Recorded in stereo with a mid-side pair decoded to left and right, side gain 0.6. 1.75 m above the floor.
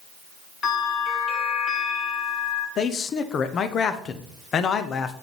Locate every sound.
0.6 s a bell: 30° left, 3.5 m
2.8 s a man speaking: 45° left, 0.8 m